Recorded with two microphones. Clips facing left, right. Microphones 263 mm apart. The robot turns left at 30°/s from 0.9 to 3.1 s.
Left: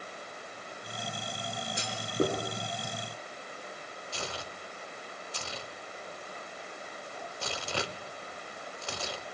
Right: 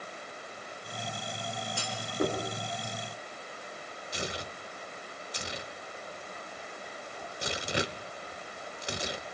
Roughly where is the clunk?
Centre.